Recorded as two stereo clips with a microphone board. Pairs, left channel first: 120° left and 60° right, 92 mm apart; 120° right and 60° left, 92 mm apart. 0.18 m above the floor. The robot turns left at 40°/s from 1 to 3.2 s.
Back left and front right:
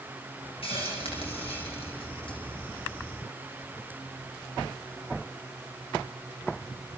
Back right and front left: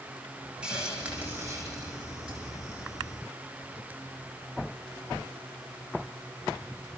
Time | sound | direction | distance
0.6 | a hiss | 140° left | 6.5 m